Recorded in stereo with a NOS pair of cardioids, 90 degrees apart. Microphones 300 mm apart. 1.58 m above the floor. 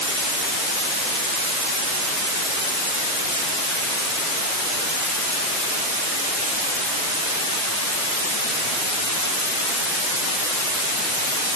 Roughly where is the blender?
No blender in this recording.